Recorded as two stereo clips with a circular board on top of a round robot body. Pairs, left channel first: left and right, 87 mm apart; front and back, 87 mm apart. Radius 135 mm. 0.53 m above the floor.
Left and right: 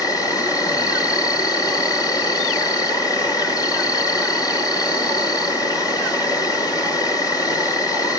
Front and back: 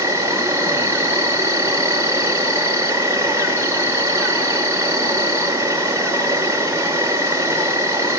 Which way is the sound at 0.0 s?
125° left.